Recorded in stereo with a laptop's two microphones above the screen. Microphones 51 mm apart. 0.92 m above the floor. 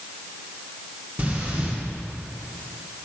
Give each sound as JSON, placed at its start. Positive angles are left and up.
{"t": 1.2, "sound": "breathing", "side_deg": -30, "distance_m": 1.6}